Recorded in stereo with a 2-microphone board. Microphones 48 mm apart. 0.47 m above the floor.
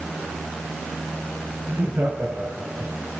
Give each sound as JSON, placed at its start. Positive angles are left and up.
{"t": 1.7, "sound": "laughter", "side_deg": -35, "distance_m": 3.5}